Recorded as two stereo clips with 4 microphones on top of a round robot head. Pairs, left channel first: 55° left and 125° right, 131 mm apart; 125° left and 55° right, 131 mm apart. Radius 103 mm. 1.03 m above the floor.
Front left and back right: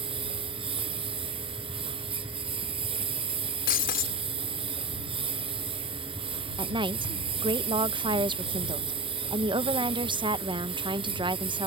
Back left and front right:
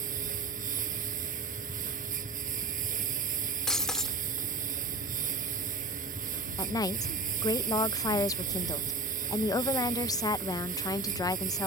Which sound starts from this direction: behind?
A woman speaking, at 6.6 s.